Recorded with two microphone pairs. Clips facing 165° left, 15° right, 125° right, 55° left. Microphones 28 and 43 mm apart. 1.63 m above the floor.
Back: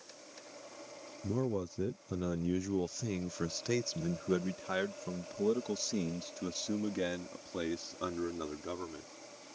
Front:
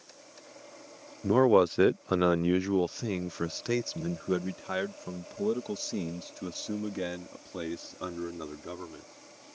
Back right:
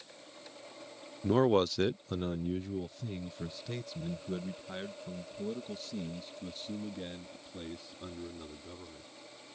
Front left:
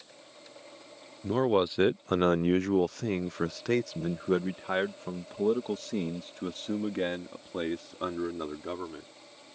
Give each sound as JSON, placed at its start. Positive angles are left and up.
{"t": 1.2, "sound": "a man speaking", "azimuth_deg": -45}